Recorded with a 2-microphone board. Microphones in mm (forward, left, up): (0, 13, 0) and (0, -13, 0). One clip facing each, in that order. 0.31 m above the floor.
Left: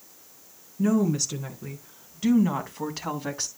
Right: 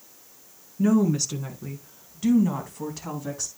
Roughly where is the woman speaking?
Centre.